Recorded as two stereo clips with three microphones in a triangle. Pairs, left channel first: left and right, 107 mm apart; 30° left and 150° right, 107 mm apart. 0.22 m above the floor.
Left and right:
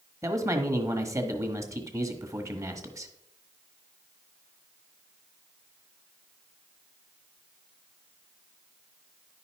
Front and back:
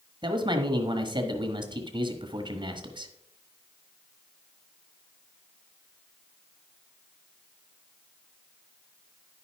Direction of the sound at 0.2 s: 140° right.